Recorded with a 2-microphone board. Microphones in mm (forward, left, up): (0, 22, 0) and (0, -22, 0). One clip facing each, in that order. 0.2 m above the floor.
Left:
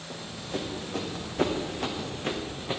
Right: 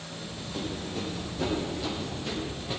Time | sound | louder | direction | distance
0.1 | running footsteps | left 3 dB | 80° left | 4.5 m